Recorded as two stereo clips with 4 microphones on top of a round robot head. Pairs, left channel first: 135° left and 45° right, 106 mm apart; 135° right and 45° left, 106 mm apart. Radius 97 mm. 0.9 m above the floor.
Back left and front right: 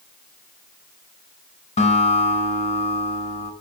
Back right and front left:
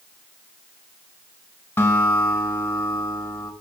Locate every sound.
1.8 s a guitar: 150° left, 5.5 m